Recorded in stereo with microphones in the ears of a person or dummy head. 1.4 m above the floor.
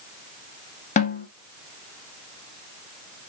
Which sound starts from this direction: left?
A snare drum, at 1.0 s.